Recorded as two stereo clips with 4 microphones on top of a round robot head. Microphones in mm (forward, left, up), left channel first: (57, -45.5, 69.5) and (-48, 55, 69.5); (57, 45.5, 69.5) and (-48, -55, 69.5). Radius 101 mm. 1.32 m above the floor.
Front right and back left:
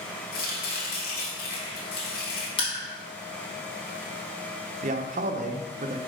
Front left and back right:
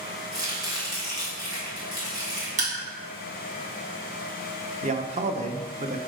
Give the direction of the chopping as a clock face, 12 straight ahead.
2 o'clock.